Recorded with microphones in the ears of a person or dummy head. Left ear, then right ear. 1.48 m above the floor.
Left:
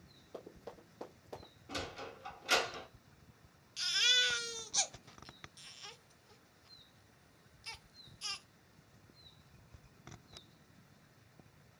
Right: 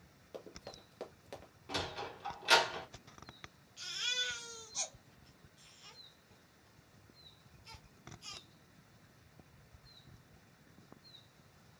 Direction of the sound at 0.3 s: 25° right (ahead or behind).